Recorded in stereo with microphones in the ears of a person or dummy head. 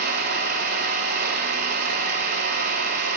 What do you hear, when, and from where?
0.0 s an engine running: 50° right (ahead or behind), 2.5 m